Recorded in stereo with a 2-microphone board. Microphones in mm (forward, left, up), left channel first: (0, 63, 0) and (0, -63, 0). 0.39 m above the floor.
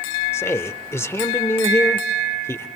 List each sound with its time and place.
0.3 s a man speaking: 20° left (ahead or behind), 0.9 m